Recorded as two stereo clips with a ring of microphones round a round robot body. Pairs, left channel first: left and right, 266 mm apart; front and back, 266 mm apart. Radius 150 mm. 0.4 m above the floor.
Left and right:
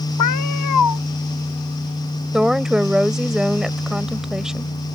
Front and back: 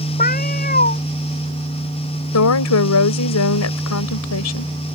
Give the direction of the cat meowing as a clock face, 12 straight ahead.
10 o'clock.